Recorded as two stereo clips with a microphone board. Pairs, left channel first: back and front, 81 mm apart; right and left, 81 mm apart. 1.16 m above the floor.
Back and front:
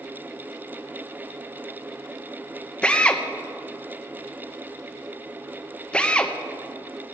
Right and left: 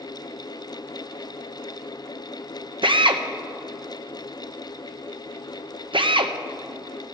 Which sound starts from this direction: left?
A drill, at 2.8 s.